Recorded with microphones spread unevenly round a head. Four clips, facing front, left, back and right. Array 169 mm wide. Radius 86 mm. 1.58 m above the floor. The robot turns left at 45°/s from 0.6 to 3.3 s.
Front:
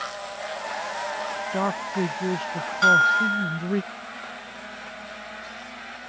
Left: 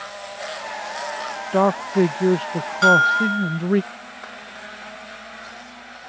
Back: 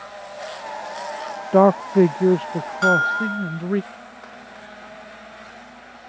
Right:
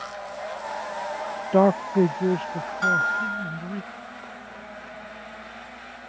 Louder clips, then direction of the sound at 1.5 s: Even, back 14 dB; 170° right.